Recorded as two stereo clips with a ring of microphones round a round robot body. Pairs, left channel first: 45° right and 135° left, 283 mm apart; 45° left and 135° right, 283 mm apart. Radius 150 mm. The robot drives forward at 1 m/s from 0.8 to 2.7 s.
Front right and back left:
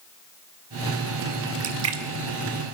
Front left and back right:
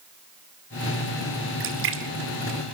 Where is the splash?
175° left, 2.5 m.